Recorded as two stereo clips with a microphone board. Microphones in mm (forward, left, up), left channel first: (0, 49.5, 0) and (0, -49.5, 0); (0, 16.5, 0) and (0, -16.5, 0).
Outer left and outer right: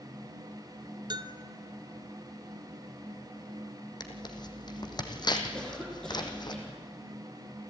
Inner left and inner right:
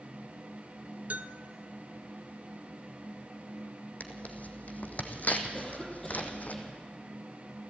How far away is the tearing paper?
About 1.8 m.